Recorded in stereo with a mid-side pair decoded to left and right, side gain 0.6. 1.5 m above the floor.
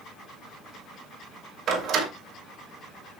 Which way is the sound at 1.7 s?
50° right.